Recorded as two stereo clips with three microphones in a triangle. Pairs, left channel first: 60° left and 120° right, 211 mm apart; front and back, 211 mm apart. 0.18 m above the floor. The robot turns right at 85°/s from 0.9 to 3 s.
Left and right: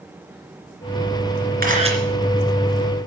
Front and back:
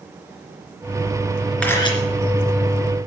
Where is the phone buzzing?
No phone buzzing in this recording.